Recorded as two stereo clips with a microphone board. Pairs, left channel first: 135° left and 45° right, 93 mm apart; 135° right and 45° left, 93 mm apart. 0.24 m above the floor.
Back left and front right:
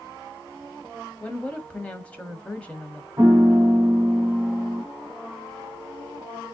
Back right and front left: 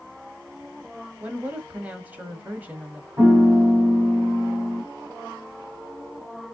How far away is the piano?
About 1.4 m.